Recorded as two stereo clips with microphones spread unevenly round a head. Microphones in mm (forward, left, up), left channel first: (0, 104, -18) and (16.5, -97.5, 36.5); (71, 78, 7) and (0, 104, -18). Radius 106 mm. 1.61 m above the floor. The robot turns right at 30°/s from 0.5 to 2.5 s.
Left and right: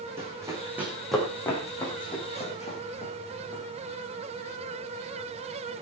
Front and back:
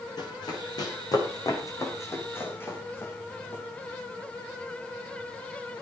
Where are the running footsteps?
10° right, 6.5 m; by 3.6 s 25° left, 6 m.